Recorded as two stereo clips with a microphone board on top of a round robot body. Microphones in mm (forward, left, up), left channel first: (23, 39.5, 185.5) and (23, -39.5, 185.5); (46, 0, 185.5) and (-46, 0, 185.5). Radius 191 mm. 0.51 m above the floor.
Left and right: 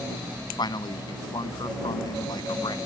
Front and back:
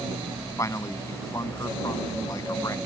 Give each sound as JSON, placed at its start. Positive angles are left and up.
{"t": 0.6, "sound": "a man speaking", "azimuth_deg": 55}